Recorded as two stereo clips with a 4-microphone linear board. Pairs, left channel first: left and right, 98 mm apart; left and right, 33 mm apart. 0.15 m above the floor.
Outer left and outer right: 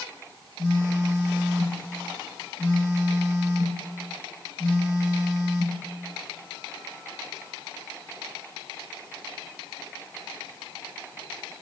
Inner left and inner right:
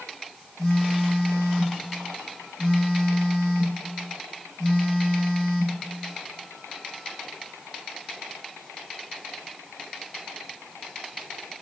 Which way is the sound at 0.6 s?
30° left (ahead or behind).